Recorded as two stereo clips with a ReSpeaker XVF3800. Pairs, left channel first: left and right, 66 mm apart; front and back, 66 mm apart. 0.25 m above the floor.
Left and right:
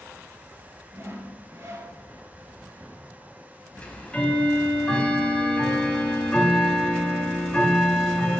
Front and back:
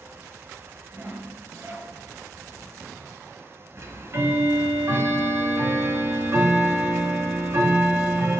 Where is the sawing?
130° right, 0.8 m.